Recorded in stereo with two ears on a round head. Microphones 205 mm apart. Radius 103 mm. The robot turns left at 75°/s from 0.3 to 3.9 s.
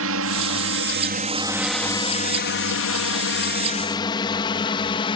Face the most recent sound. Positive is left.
turn(degrees=20)  # may be behind; listen again after turning